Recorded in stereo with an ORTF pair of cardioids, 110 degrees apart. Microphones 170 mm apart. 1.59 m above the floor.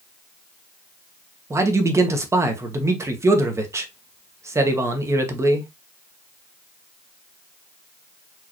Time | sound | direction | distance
1.5 | a man speaking | 15° right | 1.3 m